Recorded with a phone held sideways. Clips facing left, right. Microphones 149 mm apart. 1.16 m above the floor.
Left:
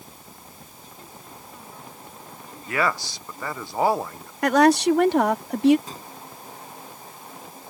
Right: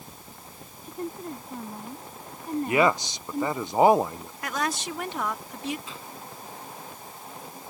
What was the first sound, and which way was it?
A woman speaking, 55° right (ahead or behind).